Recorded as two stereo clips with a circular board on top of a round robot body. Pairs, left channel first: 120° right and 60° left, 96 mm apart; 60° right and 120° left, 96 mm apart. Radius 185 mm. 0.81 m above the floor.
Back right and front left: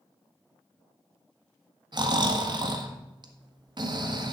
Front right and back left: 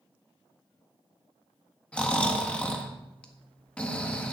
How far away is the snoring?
About 1.8 m.